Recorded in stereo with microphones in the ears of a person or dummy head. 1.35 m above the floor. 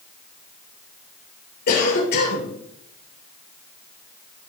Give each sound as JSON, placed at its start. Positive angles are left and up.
{"t": 1.7, "sound": "a cough", "side_deg": 50, "distance_m": 2.5}